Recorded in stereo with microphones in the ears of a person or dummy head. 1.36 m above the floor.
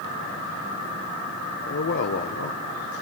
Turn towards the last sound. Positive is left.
turn(degrees=60)  # may be behind; listen again after turning